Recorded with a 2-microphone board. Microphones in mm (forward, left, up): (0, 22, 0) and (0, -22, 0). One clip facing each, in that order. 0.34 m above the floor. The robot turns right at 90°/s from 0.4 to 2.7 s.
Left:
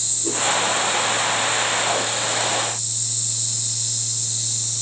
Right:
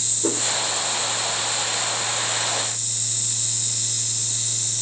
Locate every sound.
0.2 s a whoosh: 90° right, 6.5 m; by 0.4 s 85° right, 6.5 m